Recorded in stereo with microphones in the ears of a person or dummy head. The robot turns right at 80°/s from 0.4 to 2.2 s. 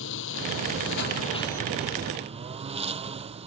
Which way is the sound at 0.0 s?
70° left.